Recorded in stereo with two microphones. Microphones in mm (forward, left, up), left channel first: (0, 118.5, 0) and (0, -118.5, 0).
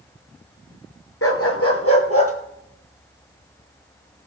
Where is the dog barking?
75° left (ahead or behind), 1.7 m; by 2.3 s 70° left (ahead or behind), 3 m.